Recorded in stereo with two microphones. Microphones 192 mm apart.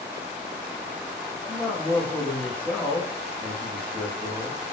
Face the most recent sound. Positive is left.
turn(degrees=5)  # may be behind; listen again after turning